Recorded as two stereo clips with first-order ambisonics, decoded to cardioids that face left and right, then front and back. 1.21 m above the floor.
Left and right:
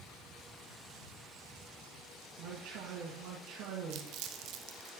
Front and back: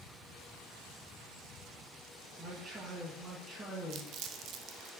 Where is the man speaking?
115° right, 1.5 m.